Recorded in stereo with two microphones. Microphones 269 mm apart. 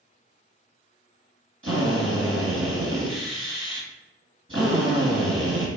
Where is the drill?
55° right (ahead or behind), 2.0 m.